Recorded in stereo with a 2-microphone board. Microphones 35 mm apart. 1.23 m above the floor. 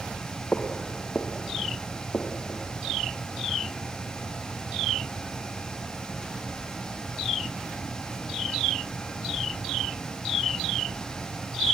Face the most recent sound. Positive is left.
turn(degrees=65)  # may be behind; listen again after turning